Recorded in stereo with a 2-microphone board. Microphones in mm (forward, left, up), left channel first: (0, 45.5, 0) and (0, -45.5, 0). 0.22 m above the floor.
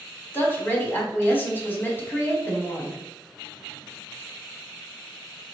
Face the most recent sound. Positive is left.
turn(degrees=25)  # may be behind; listen again after turning